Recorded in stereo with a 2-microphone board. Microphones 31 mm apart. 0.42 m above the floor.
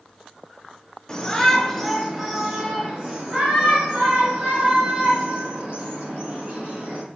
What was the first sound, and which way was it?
A shout, 25° left (ahead or behind).